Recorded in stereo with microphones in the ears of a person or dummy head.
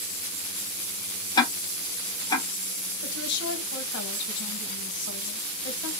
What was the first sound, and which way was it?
Ticking, 20° left (ahead or behind).